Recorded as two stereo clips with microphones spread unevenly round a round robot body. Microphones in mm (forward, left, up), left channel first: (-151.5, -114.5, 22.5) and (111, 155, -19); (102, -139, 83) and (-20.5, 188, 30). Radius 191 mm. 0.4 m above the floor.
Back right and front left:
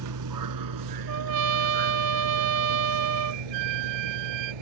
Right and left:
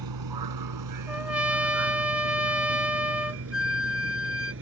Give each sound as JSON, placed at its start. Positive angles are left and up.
{"t": 0.0, "sound": "a vehicle", "azimuth_deg": 90}
{"t": 1.1, "sound": "a trumpet", "azimuth_deg": 30}
{"t": 3.5, "sound": "a flute", "azimuth_deg": 20}